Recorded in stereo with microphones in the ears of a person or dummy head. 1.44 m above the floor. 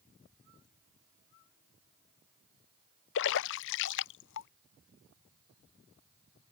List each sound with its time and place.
3.1 s a splash: 70° left (ahead or behind)